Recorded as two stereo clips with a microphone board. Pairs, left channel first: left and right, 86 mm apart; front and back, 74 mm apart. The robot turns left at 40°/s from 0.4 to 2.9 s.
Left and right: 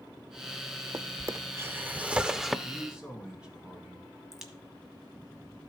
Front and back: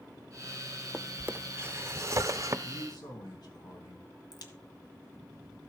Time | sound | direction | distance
0.9 | a drawer | 115° right | 0.5 m
2.6 | a man speaking | straight ahead | 3.5 m
4.3 | a crack | 5° right | 1.6 m